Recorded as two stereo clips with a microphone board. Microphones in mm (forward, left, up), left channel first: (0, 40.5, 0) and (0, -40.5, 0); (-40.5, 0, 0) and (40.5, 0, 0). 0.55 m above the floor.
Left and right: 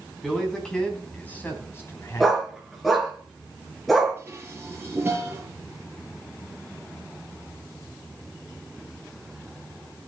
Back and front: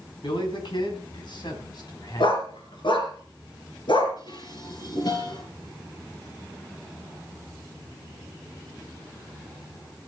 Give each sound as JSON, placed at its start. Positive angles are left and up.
{"t": 0.2, "sound": "a man speaking", "azimuth_deg": 175, "distance_m": 5.5}
{"t": 2.2, "sound": "a dog barking", "azimuth_deg": 180, "distance_m": 4.0}
{"t": 4.2, "sound": "dishes clattering", "azimuth_deg": -155, "distance_m": 7.0}